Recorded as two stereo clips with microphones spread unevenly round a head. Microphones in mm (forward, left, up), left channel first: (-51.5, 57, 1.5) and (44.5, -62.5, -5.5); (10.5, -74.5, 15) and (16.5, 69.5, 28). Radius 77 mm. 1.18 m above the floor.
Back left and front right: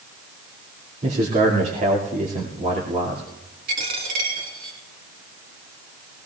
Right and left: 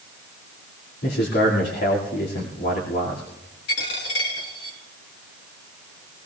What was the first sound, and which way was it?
A man speaking, 100° right.